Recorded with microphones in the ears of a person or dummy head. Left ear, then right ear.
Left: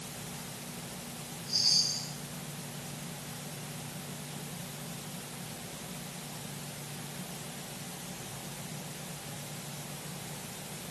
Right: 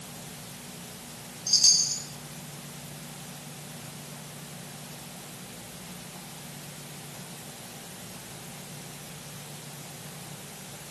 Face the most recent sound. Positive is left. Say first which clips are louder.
# right 6 dB
turn(degrees=-75)  # may be behind; listen again after turning